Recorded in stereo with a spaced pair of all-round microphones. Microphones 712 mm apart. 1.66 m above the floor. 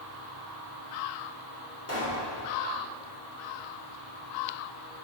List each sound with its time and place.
1.9 s a pop: 20° left (ahead or behind), 3.5 m